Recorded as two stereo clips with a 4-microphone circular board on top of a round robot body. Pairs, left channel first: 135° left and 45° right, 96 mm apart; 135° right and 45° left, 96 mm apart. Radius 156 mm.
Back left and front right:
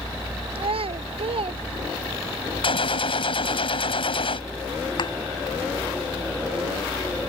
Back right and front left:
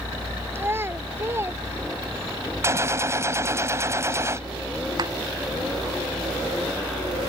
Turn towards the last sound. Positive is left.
turn(degrees=95)